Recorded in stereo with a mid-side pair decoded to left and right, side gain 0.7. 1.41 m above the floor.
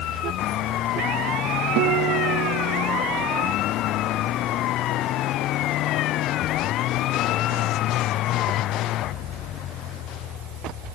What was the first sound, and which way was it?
A guitar, 65° right.